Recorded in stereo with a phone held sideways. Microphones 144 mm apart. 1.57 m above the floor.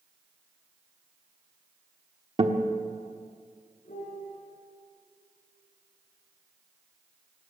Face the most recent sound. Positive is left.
turn(degrees=65)  # may be behind; listen again after turning